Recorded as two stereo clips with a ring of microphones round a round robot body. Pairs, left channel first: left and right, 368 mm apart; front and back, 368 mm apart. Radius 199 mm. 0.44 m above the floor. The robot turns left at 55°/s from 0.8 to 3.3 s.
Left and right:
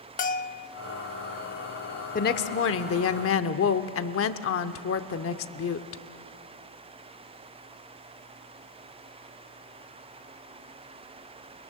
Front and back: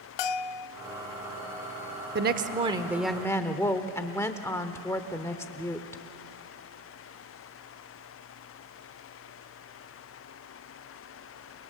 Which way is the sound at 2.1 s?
140° left.